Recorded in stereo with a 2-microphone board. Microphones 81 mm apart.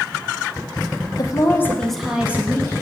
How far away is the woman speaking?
About 1.3 m.